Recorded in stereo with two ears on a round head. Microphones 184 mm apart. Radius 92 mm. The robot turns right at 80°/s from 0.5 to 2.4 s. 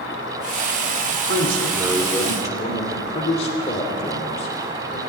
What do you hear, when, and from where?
0.0 s an insect: 80° left, 4 m; by 5.1 s 125° right, 4 m
1.1 s a man speaking: 75° right, 2.5 m; by 5.0 s 30° left, 2.5 m